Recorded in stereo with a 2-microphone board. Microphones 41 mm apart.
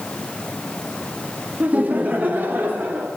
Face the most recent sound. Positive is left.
turn(degrees=-55)  # may be behind; listen again after turning